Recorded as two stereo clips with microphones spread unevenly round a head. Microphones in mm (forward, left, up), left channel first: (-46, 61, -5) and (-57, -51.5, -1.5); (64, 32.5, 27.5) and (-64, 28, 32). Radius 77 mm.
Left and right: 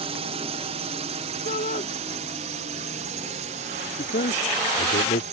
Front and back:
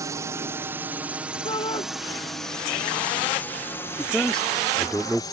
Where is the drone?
110° right; by 5.3 s 60° right.